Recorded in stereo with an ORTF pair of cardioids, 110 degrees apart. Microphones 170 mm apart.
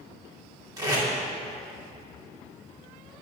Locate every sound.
0.8 s tape being pulled: 20° right, 3 m